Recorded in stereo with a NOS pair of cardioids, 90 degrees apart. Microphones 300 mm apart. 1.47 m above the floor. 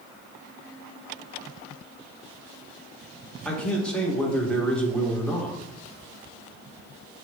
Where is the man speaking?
5° left, 1.6 m.